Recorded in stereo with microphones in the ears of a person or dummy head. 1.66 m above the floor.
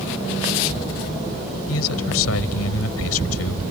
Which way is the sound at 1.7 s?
80° left.